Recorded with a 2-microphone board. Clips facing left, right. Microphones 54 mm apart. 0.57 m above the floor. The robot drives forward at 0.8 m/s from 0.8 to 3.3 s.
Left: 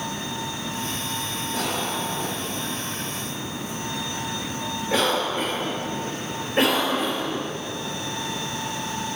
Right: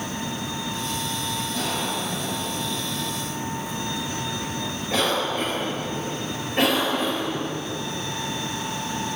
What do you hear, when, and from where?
1.5 s a cough: 40° left (ahead or behind), 1.8 m; by 7.4 s 25° left (ahead or behind), 3 m